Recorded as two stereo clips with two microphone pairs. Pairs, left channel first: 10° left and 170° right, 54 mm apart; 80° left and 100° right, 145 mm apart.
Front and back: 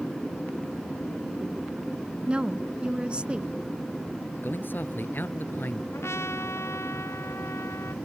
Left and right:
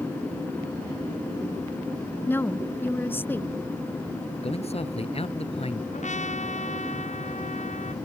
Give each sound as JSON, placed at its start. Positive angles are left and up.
{"t": 2.3, "sound": "a woman speaking", "azimuth_deg": 145}
{"t": 4.4, "sound": "a man speaking", "azimuth_deg": 50}
{"t": 5.9, "sound": "a trumpet", "azimuth_deg": 45}